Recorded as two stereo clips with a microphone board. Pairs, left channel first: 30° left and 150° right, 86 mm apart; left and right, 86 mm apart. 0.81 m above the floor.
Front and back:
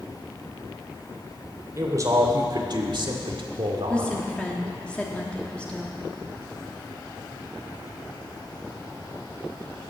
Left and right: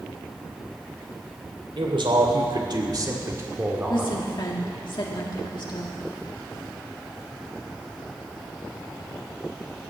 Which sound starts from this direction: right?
A man speaking, at 1.8 s.